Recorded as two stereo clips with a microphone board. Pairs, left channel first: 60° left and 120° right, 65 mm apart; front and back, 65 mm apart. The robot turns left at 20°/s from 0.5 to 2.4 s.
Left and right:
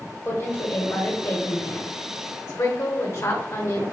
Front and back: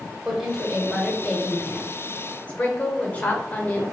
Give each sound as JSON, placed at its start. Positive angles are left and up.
{"t": 0.2, "sound": "a woman speaking", "azimuth_deg": 95, "distance_m": 1.6}